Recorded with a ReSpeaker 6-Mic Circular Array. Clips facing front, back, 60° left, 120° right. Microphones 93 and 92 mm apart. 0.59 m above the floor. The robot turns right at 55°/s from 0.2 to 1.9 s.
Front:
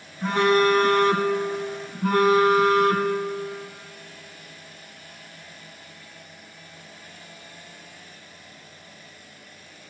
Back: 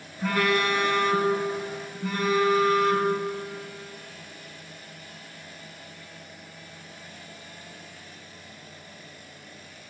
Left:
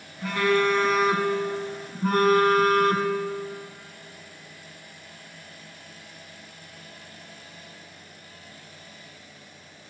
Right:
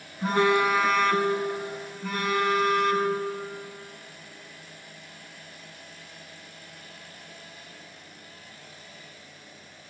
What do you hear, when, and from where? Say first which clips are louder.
0.2 s a phone buzzing: front 5 dB, right 1 dB; 70° right, 1.1 m; by 3.1 s 25° left, 1.1 m